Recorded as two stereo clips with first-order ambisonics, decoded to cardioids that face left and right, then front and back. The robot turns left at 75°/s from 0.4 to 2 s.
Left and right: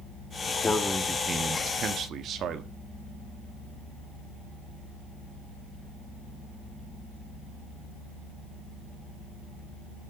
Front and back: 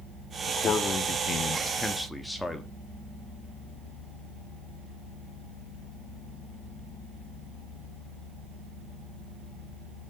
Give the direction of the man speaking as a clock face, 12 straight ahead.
11 o'clock.